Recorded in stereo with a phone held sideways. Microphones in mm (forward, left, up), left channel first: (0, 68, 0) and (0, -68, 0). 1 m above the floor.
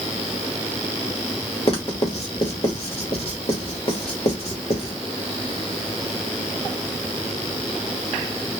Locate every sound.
1.7 s writing: 45° left (ahead or behind), 1.0 m